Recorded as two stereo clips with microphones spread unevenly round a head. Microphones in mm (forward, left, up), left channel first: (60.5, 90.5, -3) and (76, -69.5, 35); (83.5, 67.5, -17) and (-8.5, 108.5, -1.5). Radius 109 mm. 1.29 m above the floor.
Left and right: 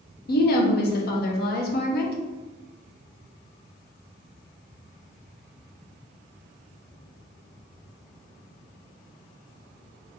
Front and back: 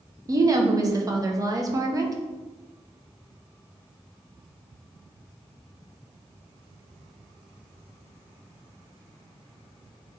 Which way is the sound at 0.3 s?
95° left.